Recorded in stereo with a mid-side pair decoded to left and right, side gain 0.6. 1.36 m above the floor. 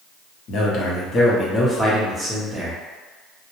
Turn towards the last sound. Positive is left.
turn(degrees=-10)